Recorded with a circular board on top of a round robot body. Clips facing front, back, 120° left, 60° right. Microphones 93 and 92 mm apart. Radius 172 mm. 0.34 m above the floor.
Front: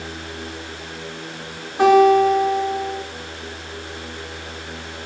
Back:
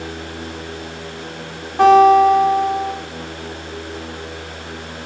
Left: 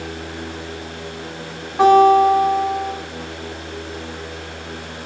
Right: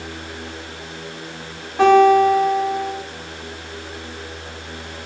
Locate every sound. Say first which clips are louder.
1.8 s a guitar: back 3 dB, left 1 dB; 155° right, 1.9 m